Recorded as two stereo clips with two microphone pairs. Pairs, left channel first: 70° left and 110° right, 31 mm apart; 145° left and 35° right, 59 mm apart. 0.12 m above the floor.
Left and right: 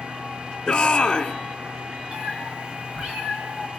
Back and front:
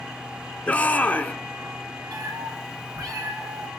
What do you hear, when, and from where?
0.7 s a shout: 120° left, 1.6 m
2.1 s a cat meowing: 50° right, 6 m